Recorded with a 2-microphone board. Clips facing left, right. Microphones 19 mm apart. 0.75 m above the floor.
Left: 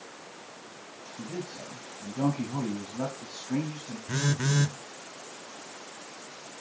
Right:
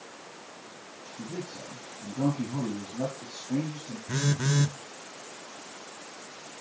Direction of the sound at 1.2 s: 65° left (ahead or behind).